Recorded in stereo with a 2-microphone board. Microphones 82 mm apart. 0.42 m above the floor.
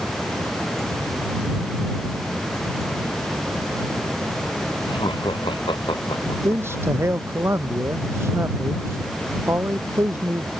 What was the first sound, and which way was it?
Laughter, 85° left.